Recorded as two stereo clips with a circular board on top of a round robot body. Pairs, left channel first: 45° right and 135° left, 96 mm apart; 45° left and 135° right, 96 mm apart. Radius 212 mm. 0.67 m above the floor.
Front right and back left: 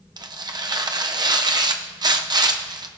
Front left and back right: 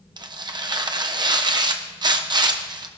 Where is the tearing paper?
Straight behind, 0.9 m.